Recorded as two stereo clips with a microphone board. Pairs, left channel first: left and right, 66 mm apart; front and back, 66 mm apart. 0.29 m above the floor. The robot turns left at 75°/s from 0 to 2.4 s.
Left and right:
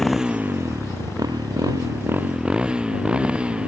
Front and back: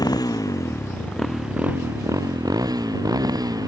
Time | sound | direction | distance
0.0 | a motorcycle | 5° left | ?